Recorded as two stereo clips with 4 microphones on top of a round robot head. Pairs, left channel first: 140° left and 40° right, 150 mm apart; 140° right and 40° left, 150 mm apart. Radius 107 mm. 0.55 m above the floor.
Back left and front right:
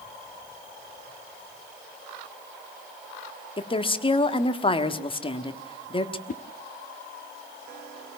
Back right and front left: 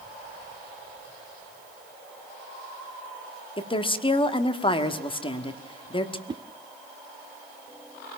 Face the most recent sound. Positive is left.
turn(degrees=105)